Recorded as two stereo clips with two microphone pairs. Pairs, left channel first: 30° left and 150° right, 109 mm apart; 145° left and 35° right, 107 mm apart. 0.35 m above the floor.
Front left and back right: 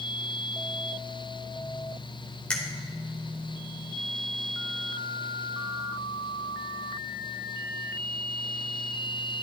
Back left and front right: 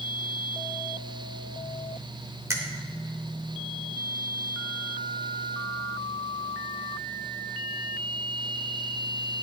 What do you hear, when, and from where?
2.5 s a finger snap: 35° right, 0.8 m